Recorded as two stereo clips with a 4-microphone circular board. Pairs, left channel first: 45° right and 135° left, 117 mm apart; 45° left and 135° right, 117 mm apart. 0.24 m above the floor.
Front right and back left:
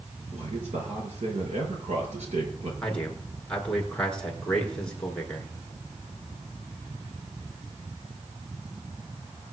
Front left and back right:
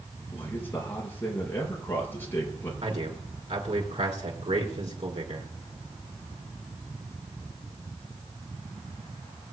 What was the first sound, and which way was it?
A man speaking, 115° left.